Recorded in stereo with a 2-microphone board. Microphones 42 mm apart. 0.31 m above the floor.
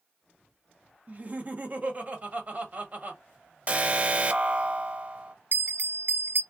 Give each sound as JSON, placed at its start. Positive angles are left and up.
{"t": 1.1, "sound": "laughter", "side_deg": -40, "distance_m": 1.4}
{"t": 3.7, "sound": "an alarm", "side_deg": -35, "distance_m": 0.7}
{"t": 5.5, "sound": "a bell", "side_deg": -60, "distance_m": 0.6}